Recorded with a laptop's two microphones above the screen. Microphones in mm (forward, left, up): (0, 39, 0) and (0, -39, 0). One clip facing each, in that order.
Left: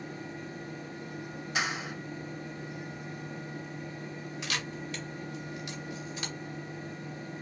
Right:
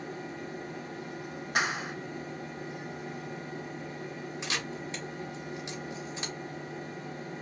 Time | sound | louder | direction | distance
0.0 | a fan | right 2 dB | 75° right (ahead or behind) | 1.2 m
1.6 | a clap | right 3 dB | 55° right (ahead or behind) | 1.0 m
4.4 | a camera shutter | even | 25° right (ahead or behind) | 1.2 m